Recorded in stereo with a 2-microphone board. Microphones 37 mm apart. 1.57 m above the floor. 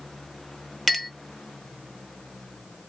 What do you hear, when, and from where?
0.9 s a clink: 5° left (ahead or behind), 0.7 m